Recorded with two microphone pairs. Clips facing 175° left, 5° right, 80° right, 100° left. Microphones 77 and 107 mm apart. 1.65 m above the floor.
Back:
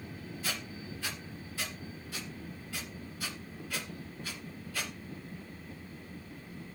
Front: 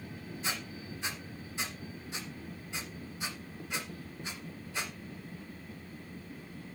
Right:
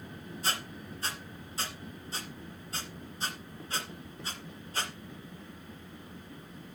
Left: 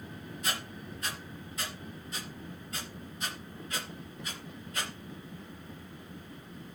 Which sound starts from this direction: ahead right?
A squeak, at 0.4 s.